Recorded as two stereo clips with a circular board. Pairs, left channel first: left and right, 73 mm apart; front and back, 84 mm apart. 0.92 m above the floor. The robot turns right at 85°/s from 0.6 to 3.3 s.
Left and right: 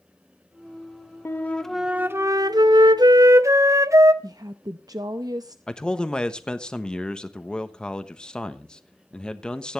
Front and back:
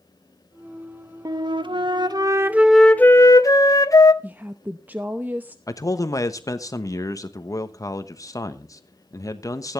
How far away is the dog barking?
No dog barking in this recording.